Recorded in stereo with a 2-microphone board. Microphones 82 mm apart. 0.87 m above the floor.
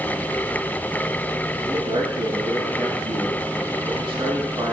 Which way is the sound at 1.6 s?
80° right.